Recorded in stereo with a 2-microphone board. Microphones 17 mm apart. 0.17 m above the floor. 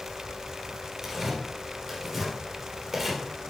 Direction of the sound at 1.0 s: 15° right (ahead or behind).